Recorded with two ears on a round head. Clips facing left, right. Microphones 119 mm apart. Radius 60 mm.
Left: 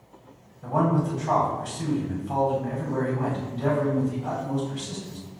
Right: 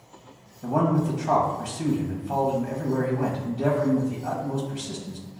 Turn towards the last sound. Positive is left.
turn(degrees=-20)  # may be behind; listen again after turning